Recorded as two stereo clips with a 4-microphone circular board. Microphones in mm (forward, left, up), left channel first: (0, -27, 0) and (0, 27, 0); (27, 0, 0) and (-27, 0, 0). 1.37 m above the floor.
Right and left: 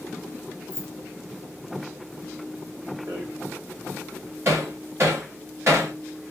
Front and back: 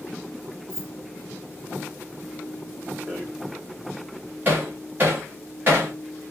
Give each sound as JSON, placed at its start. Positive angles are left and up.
{"t": 0.7, "sound": "keys jangling", "azimuth_deg": 140, "distance_m": 2.5}
{"t": 3.1, "sound": "a rattle", "azimuth_deg": 100, "distance_m": 1.4}
{"t": 4.5, "sound": "hammering", "azimuth_deg": 125, "distance_m": 2.0}